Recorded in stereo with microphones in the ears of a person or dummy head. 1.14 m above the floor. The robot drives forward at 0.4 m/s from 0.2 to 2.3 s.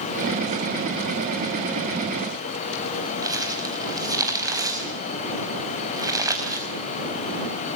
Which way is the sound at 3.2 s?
15° right (ahead or behind).